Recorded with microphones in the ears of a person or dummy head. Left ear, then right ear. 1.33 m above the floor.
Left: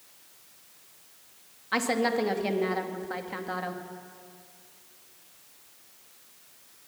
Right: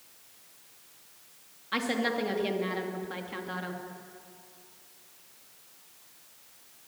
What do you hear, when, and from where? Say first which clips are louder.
1.7 s a woman speaking: left 3 dB; 35° left (ahead or behind), 2.5 m